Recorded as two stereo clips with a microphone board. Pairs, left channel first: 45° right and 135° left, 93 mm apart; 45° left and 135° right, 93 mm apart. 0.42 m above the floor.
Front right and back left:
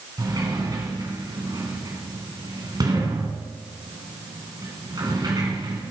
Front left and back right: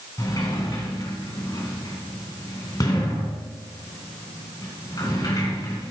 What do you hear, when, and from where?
0.2 s a sliding door: 90° left, 3 m